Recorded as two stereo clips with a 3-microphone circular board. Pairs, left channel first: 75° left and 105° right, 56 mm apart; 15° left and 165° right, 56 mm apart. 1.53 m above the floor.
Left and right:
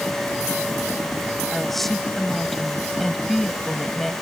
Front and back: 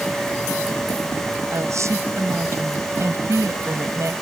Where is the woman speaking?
165° left.